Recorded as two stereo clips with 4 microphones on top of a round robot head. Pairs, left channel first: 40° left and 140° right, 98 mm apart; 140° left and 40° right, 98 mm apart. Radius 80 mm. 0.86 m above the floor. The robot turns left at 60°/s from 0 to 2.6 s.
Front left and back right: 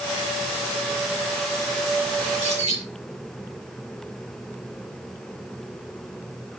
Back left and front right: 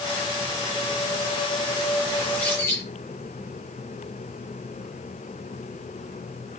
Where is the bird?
130° right, 3.5 m; by 2.8 s 155° right, 3.5 m.